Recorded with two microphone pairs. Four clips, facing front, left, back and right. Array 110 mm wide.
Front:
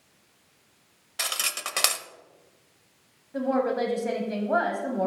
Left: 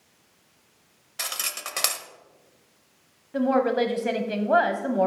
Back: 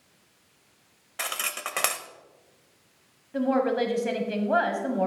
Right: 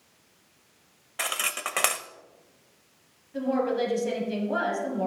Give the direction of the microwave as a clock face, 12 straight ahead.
No microwave in this recording.